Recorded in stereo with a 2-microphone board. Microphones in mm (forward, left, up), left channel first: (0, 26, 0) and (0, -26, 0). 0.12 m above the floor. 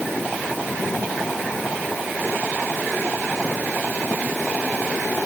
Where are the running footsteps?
I don't hear running footsteps.